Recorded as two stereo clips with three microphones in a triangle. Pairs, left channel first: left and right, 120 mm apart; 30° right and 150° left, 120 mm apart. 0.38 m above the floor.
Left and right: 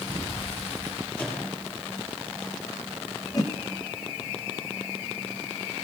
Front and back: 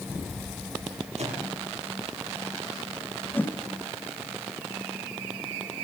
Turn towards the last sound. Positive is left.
turn(degrees=40)